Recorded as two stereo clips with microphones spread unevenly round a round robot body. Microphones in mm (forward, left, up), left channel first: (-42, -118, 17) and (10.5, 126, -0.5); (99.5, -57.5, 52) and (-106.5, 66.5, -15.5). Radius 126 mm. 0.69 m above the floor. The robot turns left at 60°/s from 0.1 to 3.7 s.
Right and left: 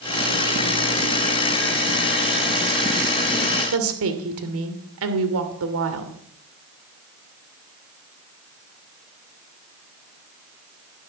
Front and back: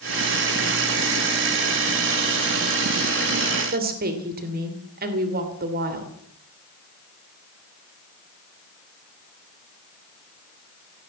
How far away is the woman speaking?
About 2.5 m.